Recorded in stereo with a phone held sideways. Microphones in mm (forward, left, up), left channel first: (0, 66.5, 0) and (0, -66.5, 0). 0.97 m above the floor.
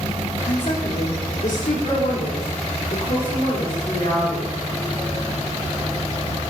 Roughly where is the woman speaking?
Left.